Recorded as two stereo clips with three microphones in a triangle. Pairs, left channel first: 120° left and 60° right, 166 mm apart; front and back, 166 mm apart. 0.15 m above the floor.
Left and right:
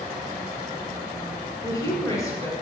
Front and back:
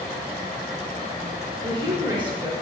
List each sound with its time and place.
1.6 s a woman speaking: 170° left, 1.8 m